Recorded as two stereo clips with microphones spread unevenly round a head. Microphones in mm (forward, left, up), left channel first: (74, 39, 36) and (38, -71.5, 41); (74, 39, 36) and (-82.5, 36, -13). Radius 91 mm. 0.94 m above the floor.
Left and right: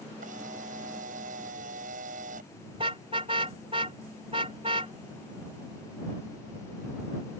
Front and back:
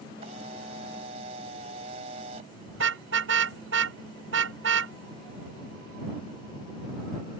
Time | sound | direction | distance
0.2 | a camera shutter | 120° right | ?
2.7 | a car horn | 170° right | ?